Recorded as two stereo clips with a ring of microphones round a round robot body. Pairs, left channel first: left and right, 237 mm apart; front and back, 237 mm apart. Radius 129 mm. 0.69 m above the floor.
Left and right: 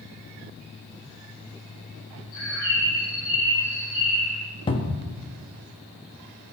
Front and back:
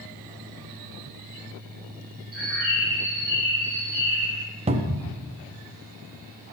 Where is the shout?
I don't hear a shout.